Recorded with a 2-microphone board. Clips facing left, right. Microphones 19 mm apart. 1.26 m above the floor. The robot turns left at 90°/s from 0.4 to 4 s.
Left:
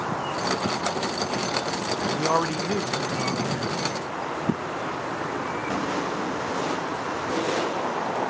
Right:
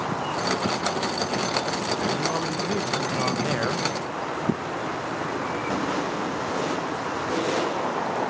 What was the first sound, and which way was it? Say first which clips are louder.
A man speaking: left 2 dB; 70° left.